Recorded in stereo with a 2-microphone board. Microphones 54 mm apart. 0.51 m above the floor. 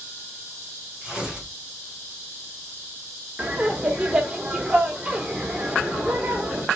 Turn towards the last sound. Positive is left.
turn(degrees=-20)  # may be behind; listen again after turning